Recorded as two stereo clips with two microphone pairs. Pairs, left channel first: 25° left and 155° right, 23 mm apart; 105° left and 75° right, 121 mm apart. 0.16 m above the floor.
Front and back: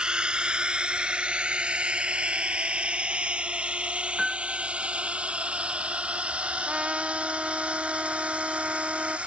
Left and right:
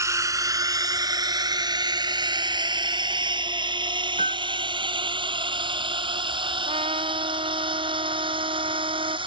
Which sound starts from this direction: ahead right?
A piano, at 4.2 s.